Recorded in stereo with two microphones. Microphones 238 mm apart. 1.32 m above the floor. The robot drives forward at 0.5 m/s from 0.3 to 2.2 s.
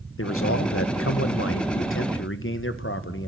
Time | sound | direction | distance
0.2 | a man speaking | 65° left (ahead or behind) | 1.4 m